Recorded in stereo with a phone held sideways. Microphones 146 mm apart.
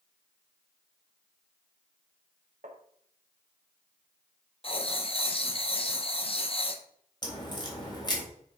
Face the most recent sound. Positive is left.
turn(degrees=30)  # may be behind; listen again after turning